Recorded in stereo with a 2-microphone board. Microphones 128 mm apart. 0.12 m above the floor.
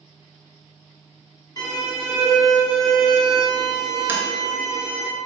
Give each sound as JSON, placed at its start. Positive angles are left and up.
{"t": 1.6, "sound": "a violin", "side_deg": 30, "distance_m": 0.7}
{"t": 4.1, "sound": "tapping", "side_deg": -15, "distance_m": 0.7}